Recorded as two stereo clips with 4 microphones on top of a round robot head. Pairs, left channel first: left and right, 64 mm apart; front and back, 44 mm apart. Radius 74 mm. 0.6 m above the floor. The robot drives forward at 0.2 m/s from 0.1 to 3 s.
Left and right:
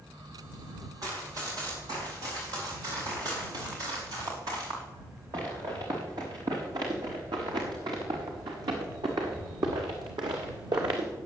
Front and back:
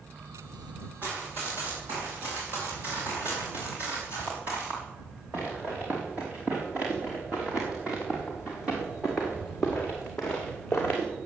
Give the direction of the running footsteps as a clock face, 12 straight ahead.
4 o'clock.